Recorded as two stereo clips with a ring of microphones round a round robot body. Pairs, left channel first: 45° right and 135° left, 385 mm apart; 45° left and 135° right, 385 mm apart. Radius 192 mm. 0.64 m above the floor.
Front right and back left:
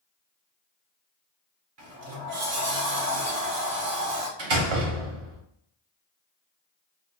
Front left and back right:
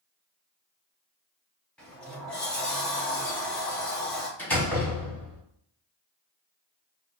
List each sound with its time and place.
1.8 s a sliding door: 130° left, 0.8 m
4.4 s a door slam: 130° left, 1.2 m